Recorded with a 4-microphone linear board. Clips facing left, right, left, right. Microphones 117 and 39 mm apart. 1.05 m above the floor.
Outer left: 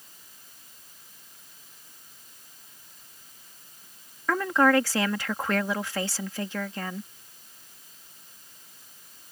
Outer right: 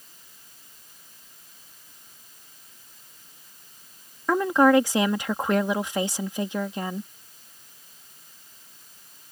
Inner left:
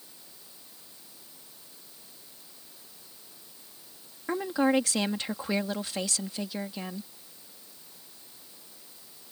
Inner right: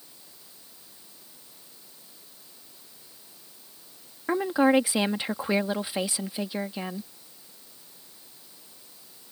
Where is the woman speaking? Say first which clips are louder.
Outer right 4 dB, inner right 4 dB; 20° right (ahead or behind).